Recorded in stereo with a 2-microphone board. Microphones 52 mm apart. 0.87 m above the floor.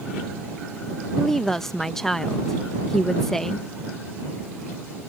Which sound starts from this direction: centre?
A woman speaking, at 1.1 s.